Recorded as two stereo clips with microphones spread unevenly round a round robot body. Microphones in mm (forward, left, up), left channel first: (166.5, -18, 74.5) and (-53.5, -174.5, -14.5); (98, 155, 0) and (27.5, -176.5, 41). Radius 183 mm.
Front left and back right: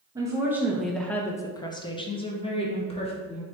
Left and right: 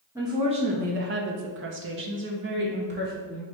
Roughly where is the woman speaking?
Behind.